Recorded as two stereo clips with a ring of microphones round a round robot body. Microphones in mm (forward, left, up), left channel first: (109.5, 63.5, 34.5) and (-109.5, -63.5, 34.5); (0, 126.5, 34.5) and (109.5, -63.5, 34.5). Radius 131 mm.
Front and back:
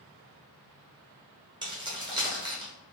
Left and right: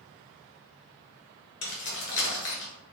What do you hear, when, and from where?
1.6 s keys jangling: 140° left, 1.0 m